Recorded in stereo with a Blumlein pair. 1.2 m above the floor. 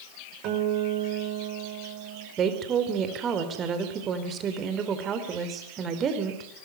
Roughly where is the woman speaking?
Ahead right.